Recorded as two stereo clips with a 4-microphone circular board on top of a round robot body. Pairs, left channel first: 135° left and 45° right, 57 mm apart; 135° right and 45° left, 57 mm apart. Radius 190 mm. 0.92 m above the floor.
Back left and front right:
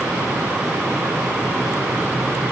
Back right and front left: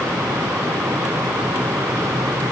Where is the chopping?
I don't hear chopping.